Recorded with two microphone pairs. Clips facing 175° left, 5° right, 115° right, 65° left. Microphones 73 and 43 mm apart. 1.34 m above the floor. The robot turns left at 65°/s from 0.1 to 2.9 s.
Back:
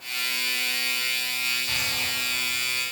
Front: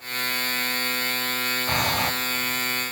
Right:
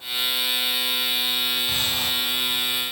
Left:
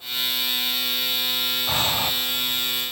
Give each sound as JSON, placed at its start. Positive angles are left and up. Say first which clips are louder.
{"t": 1.7, "sound": "breathing", "louder": "front 7 dB, left 2 dB", "azimuth_deg": 35, "distance_m": 0.9}